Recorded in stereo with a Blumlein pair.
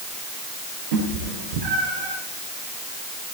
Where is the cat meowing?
55° right, 6.5 m.